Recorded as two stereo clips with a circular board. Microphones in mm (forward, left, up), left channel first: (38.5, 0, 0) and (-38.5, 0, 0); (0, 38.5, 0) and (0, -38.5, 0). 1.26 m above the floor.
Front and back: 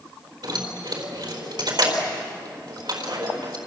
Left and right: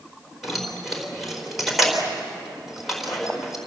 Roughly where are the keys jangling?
Behind.